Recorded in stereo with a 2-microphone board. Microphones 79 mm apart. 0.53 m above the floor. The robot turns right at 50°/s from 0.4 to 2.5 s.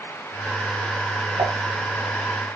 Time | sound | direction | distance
1.4 | dishes clattering | 80° right | 3 m